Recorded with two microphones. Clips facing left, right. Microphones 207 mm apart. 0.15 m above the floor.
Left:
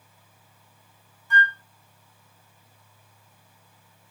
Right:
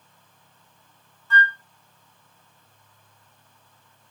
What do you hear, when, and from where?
1.3 s a flute: 15° left (ahead or behind), 0.6 m